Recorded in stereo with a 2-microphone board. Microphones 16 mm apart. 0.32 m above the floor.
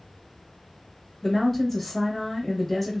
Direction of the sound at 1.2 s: 10° left (ahead or behind).